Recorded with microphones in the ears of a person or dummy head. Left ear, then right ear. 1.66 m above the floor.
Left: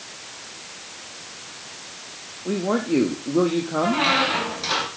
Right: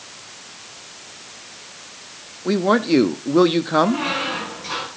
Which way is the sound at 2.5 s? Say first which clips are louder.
Right 6 dB; 70° right (ahead or behind).